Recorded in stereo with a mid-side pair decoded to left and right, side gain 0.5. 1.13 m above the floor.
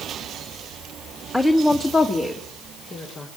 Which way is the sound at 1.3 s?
15° left.